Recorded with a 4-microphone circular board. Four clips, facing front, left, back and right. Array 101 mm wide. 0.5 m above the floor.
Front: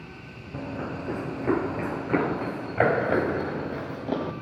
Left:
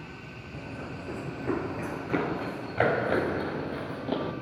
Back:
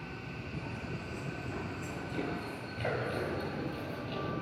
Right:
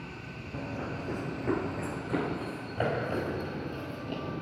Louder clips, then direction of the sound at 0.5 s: Right 3 dB, front 11 dB; 15° right.